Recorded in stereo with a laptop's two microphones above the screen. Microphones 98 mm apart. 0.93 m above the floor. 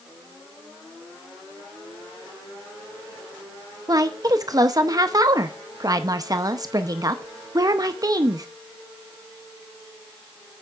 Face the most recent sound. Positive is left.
turn(degrees=-40)  # may be behind; listen again after turning